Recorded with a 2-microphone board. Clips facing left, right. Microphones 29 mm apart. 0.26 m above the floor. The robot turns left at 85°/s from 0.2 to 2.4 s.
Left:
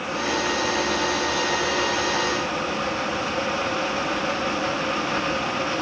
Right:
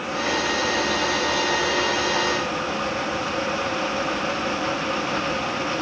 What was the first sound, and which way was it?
Only background noise.